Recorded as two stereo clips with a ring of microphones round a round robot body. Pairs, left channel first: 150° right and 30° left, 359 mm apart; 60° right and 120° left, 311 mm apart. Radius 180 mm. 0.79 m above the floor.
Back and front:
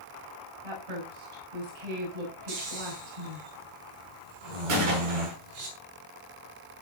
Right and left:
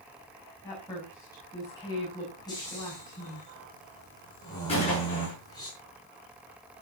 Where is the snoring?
20° left, 6 m.